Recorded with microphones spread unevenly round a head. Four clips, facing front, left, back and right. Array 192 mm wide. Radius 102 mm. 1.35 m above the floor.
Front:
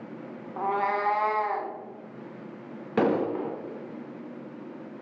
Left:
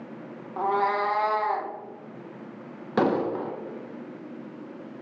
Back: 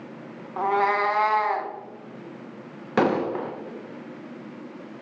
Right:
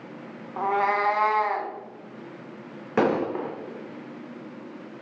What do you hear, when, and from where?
0.6 s a cat meowing: 130° right, 0.5 m
3.0 s an explosion: 140° right, 0.5 m